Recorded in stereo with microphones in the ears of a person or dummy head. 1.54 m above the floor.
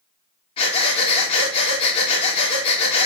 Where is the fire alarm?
No fire alarm in this recording.